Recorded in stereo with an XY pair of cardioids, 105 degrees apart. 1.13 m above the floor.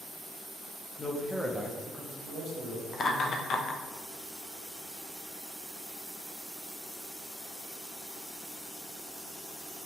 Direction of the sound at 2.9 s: 45° left.